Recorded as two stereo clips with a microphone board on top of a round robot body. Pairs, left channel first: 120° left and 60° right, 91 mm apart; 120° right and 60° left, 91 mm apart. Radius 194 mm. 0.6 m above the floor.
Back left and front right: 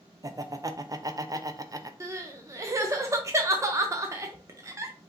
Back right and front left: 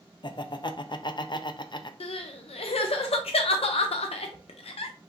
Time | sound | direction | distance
0.2 | laughter | 100° right | 0.8 m
2.0 | crying | 120° right | 0.6 m